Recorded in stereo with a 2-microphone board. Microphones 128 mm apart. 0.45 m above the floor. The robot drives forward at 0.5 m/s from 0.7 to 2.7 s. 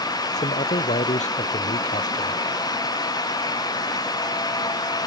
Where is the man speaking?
70° left (ahead or behind); by 2.4 s 75° left (ahead or behind).